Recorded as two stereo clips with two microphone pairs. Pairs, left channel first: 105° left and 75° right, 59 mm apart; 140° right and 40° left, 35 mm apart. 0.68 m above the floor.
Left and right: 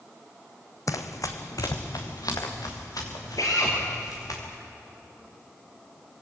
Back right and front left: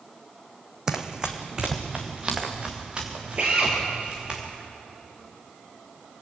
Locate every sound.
0.9 s running footsteps: 110° left, 1.5 m; by 4.4 s 105° left, 6.5 m
3.4 s a drill: 95° left, 6 m